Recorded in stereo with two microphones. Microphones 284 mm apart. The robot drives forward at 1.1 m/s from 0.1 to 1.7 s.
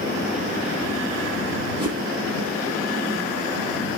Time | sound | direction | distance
1.8 | a whoosh | 15° right (ahead or behind) | 6 m